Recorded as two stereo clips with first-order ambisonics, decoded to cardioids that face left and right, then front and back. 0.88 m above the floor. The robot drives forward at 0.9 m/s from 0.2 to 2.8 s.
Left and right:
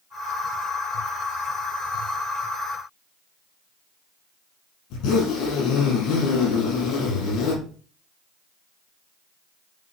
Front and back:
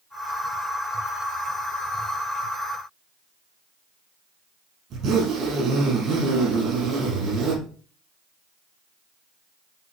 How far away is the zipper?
About 6 m.